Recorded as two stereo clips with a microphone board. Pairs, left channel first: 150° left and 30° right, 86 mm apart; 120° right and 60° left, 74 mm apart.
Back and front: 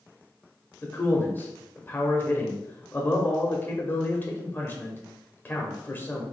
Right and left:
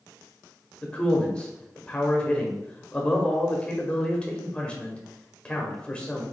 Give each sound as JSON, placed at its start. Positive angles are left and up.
{"t": 0.8, "sound": "a man speaking", "azimuth_deg": 180, "distance_m": 1.0}